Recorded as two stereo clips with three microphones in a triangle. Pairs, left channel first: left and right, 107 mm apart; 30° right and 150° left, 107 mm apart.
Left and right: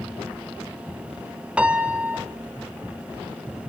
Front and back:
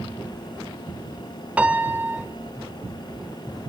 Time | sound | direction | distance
1.6 | a piano | 150° right | 1.1 m